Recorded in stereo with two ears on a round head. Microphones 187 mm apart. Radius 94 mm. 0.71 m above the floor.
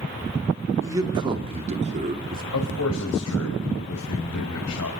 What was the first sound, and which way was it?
A man speaking, 15° right (ahead or behind).